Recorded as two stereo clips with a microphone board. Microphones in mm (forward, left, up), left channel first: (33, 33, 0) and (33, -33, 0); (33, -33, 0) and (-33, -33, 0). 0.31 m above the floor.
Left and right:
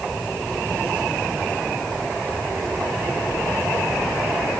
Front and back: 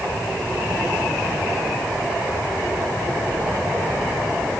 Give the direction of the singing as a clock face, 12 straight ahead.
No singing in this recording.